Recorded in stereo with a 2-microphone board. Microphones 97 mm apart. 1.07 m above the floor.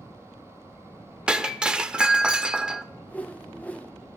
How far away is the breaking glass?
About 0.7 m.